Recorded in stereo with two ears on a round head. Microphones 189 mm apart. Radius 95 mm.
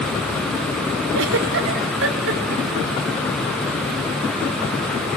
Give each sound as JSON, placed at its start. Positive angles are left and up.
{"t": 1.1, "sound": "a giggle", "side_deg": -65, "distance_m": 3.0}